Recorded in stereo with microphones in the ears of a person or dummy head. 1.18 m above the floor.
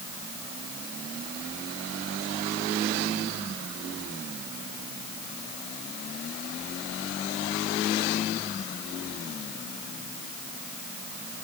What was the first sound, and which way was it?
Only background noise.